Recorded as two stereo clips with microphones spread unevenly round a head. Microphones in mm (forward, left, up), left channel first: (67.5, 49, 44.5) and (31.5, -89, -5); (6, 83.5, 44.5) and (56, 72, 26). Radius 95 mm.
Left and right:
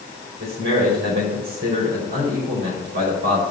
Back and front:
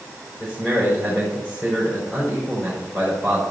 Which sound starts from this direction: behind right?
A man speaking, at 0.4 s.